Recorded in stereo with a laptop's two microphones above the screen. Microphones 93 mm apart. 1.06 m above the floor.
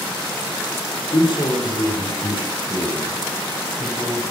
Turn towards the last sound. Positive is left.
turn(degrees=80)